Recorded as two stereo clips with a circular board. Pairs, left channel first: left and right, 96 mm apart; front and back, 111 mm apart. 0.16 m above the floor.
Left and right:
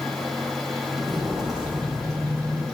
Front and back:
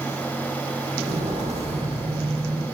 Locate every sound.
0.9 s footsteps: 175° left, 3 m; by 2.6 s 155° right, 2.5 m